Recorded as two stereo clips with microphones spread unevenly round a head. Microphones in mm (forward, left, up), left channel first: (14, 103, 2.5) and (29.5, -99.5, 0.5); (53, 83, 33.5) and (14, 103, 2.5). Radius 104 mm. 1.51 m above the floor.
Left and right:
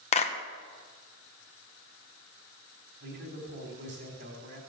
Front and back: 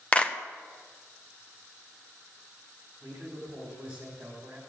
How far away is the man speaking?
About 4 m.